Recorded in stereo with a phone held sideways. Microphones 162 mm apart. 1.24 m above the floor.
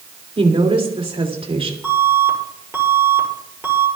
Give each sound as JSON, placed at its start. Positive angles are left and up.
{"t": 0.4, "sound": "a woman speaking", "side_deg": -40, "distance_m": 3.0}
{"t": 1.8, "sound": "an alarm", "side_deg": -20, "distance_m": 6.5}